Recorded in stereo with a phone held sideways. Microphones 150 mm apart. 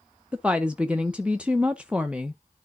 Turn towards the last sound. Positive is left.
turn(degrees=-10)  # may be behind; listen again after turning